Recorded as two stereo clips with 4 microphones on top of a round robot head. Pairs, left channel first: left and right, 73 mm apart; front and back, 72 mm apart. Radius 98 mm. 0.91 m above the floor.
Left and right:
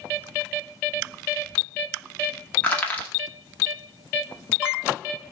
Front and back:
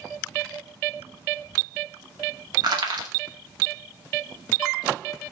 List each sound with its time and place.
2.6 s crushing: 165° left, 2 m